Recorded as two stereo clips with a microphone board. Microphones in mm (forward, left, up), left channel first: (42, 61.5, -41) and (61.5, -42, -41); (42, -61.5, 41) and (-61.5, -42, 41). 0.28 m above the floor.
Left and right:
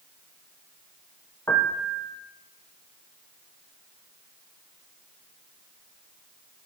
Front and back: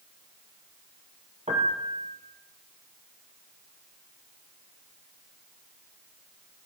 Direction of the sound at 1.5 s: 165° left.